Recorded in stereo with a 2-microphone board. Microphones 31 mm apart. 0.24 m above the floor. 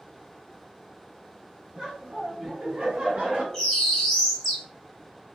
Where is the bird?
10° left (ahead or behind), 1.1 m.